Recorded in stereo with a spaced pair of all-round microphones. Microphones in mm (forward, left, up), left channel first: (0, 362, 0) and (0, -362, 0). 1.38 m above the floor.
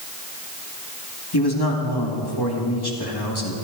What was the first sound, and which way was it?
A man speaking, 30° left (ahead or behind).